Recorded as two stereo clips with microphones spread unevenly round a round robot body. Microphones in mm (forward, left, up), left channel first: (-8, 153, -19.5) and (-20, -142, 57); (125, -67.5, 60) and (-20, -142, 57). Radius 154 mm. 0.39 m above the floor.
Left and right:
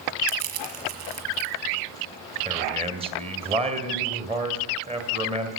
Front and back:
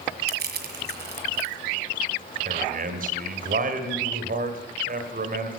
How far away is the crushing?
About 1.9 m.